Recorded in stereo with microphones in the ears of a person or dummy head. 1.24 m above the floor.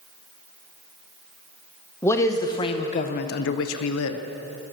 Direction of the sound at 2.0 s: 15° left (ahead or behind).